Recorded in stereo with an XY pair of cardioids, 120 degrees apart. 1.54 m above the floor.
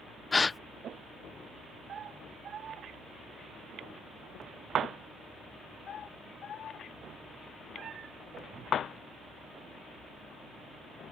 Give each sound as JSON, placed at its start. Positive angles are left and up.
{"t": 0.3, "sound": "a gasp", "azimuth_deg": 20}